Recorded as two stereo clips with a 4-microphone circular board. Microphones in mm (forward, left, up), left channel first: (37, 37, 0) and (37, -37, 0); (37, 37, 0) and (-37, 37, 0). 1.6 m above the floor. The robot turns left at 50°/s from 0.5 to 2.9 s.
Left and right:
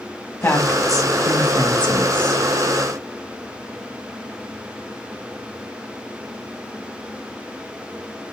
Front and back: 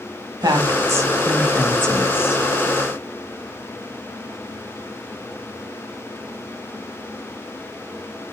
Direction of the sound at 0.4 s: 150° left.